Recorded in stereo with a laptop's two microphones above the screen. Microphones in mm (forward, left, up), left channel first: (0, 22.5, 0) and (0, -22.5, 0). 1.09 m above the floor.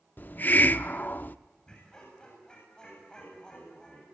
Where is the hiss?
45° left (ahead or behind), 0.7 m.